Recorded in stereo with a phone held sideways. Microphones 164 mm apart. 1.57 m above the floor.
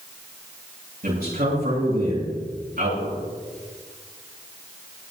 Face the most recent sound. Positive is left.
turn(degrees=-70)  # may be behind; listen again after turning